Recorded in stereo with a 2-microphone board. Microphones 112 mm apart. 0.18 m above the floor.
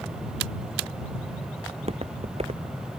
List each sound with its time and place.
1.7 s footsteps: 70° right (ahead or behind)